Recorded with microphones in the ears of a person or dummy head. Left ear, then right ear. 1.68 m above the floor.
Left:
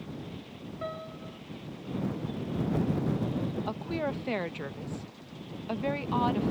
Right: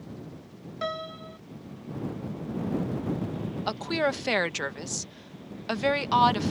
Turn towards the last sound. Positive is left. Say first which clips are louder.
# right 10 dB
turn(degrees=-65)  # may be behind; listen again after turning